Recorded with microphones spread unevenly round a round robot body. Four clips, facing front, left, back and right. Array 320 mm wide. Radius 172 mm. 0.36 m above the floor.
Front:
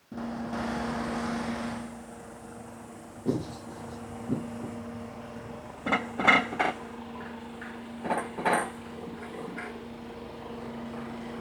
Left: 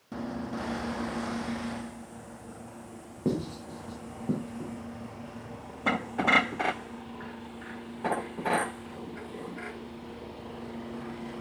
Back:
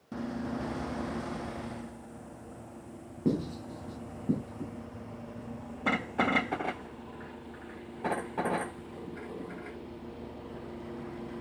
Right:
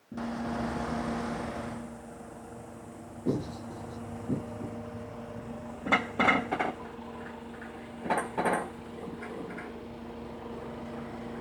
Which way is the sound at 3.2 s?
135° left.